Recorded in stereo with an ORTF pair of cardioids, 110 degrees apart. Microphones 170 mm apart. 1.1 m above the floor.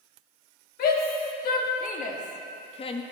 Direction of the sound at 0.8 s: 60° left.